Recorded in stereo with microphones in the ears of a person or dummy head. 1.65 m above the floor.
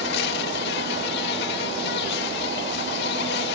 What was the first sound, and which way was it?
An insect, 65° left (ahead or behind).